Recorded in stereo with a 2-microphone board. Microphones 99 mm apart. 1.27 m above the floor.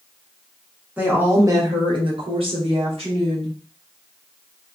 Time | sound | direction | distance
1.0 | a woman speaking | 15° right (ahead or behind) | 1.0 m